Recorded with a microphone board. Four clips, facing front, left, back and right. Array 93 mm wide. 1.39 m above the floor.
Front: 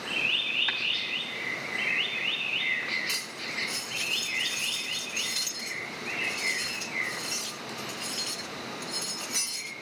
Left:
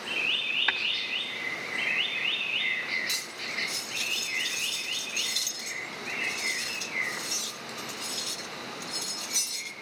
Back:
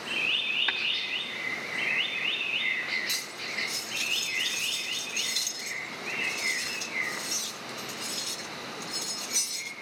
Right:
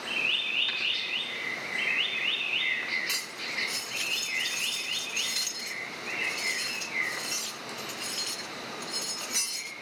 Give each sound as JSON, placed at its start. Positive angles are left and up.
{"t": 0.7, "sound": "tapping", "azimuth_deg": 105, "distance_m": 2.5}
{"t": 3.1, "sound": "cutlery clinking", "azimuth_deg": -55, "distance_m": 0.7}